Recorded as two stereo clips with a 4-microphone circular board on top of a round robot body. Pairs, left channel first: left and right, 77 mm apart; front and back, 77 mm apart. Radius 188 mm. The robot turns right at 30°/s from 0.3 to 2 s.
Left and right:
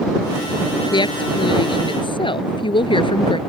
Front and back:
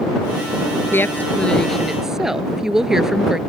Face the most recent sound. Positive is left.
turn(degrees=95)